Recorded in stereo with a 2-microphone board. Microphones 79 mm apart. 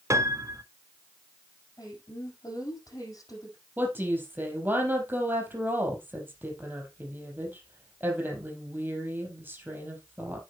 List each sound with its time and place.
0.1 s a piano: 40° right (ahead or behind), 0.9 m
1.8 s a woman speaking: 50° left (ahead or behind), 6 m
3.8 s a woman speaking: 25° right (ahead or behind), 4.5 m